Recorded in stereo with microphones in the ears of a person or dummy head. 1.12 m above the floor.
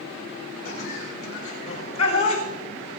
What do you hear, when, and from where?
0.7 s laughter: 40° left (ahead or behind), 6.5 m; by 2.4 s 30° left (ahead or behind), 5.5 m